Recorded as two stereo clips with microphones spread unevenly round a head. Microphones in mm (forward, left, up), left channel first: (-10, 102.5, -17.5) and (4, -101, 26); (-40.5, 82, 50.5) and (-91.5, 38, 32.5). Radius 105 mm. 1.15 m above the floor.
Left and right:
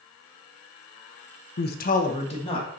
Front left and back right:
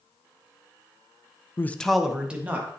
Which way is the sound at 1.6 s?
105° left.